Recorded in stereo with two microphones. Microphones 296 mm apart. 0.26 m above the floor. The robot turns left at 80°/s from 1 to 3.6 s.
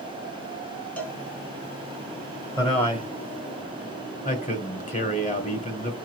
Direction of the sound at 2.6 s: 10° left (ahead or behind).